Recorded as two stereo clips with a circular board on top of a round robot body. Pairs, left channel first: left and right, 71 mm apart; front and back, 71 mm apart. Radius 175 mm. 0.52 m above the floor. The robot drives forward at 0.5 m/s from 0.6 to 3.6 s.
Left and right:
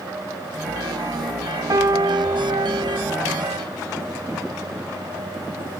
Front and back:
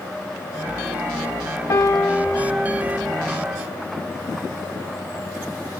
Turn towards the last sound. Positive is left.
turn(degrees=-125)